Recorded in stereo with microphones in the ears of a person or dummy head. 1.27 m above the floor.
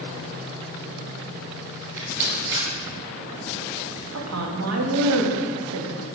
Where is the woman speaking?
85° right, 1.5 m.